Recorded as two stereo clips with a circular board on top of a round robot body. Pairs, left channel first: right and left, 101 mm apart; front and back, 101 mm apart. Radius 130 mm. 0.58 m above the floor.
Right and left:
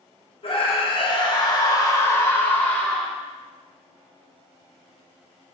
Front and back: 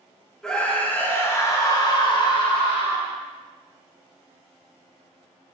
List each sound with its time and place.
0.4 s a scream: 85° right, 2 m; by 3.1 s 5° right, 2 m